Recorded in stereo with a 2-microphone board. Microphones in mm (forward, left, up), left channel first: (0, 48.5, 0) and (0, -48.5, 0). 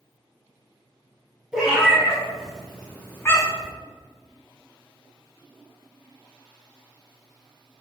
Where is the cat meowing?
10° right (ahead or behind), 1.6 m; by 3.7 s 35° left (ahead or behind), 0.7 m.